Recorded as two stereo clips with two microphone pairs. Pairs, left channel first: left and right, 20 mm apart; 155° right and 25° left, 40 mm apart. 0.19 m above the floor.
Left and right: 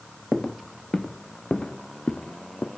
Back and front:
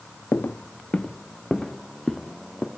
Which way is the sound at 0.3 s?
175° right.